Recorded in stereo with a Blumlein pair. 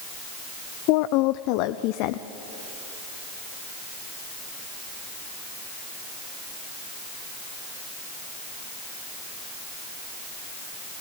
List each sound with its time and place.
0.9 s a woman speaking: 45° left, 0.5 m